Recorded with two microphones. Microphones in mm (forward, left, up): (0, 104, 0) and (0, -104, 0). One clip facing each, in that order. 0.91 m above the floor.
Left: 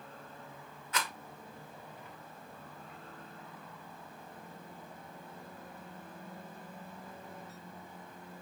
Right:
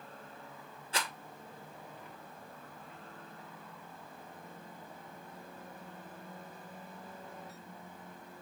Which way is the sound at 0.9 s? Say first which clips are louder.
Even; 30° right (ahead or behind).